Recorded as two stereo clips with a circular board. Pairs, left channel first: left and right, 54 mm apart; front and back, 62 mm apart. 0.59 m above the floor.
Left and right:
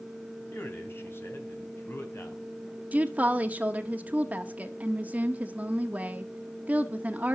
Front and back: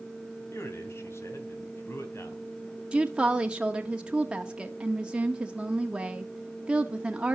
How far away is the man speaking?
About 3.5 m.